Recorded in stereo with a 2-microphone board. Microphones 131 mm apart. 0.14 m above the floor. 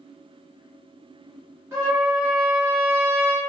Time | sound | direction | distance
1.7 | a trumpet | 20° right (ahead or behind) | 1.8 m